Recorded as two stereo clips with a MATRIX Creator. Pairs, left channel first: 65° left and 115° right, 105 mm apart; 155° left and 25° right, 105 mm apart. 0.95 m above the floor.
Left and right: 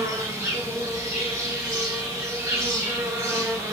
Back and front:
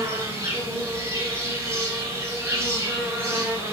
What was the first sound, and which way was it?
An insect, 70° right.